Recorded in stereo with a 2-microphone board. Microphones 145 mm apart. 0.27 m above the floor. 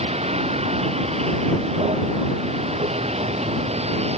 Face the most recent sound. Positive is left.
turn(degrees=-45)  # may be behind; listen again after turning